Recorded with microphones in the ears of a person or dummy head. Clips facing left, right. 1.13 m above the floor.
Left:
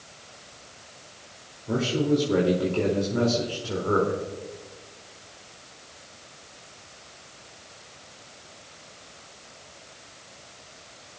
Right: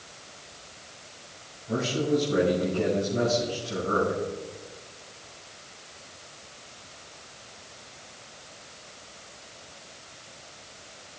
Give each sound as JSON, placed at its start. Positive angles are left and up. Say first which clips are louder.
{"t": 1.7, "sound": "a man speaking", "louder": "left 2 dB", "side_deg": 70, "distance_m": 2.5}